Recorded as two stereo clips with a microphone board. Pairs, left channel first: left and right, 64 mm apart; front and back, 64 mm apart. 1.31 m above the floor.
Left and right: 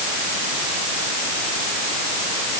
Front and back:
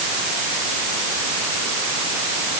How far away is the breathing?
No breathing in this recording.